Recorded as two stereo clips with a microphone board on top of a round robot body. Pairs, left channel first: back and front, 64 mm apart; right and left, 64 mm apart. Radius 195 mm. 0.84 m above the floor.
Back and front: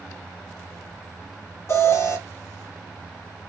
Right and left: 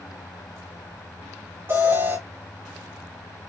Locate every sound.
1.7 s an alarm: 140° left, 2.5 m